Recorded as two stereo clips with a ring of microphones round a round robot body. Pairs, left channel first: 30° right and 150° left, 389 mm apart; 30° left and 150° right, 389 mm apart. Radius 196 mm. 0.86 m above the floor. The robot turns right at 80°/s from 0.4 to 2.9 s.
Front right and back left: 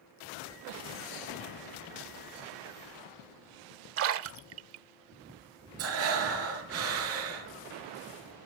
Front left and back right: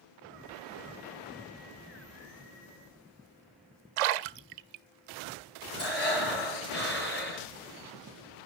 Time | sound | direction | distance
4.0 | a splash | 150° right | 0.8 m
5.8 | breathing | 95° left | 3.5 m